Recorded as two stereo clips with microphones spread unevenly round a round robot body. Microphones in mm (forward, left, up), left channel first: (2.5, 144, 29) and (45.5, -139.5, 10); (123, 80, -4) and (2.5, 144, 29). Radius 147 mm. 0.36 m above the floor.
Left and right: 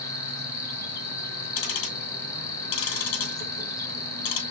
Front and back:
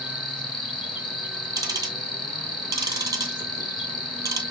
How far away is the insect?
About 1.3 m.